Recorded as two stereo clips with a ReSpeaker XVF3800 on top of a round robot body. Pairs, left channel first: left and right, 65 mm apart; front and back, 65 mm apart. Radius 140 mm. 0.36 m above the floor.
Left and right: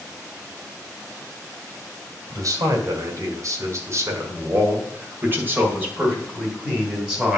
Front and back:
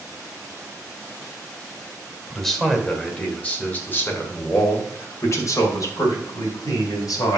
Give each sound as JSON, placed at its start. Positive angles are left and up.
{"t": 2.3, "sound": "a man speaking", "azimuth_deg": -85, "distance_m": 1.9}